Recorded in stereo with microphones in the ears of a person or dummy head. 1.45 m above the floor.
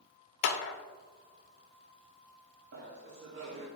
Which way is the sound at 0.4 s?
60° left (ahead or behind).